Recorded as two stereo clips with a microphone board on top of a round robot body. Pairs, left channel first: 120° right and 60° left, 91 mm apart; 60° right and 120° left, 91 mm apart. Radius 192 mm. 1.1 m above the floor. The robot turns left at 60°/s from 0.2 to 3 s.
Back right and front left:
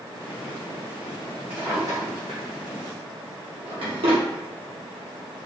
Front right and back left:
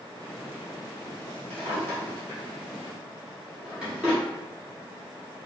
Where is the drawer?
130° left, 1.3 m; by 4.2 s 40° left, 1.3 m.